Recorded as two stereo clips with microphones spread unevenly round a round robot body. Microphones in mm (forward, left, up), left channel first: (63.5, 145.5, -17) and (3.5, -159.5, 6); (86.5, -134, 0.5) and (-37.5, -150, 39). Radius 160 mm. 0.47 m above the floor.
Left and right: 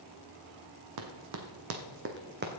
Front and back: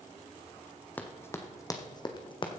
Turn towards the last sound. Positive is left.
turn(degrees=-45)